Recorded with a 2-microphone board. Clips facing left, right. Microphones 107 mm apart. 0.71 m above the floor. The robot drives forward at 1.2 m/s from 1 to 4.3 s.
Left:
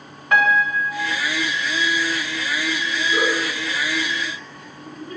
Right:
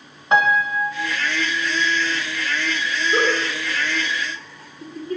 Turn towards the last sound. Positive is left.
turn(degrees=-35)  # may be behind; listen again after turning